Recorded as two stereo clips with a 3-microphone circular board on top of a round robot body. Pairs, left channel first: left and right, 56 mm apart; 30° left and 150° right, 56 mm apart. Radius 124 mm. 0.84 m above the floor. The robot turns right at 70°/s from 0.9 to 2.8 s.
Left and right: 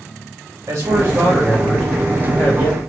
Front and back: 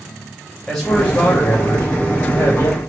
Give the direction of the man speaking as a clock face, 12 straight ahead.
1 o'clock.